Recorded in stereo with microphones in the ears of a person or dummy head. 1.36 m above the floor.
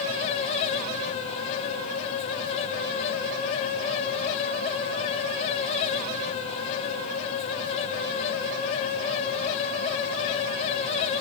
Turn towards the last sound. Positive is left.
No sound to turn to.